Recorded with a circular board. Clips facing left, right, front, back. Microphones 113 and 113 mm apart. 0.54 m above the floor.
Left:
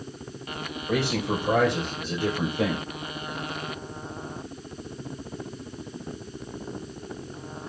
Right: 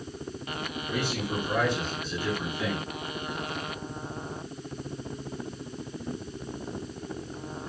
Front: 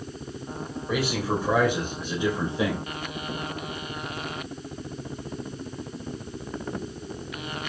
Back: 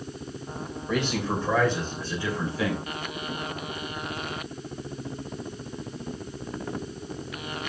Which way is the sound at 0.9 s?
85° left.